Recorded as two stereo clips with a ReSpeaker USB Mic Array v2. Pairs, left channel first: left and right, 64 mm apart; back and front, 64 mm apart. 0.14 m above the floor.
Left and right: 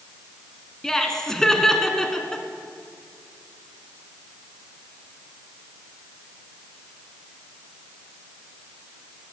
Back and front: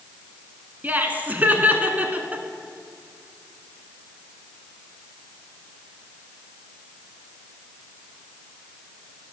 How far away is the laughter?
About 1.2 m.